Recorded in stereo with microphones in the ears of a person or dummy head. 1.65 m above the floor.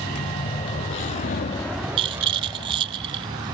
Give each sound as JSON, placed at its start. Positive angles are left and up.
{"t": 0.0, "sound": "a vehicle", "side_deg": 30}
{"t": 2.0, "sound": "a rattle", "side_deg": -25}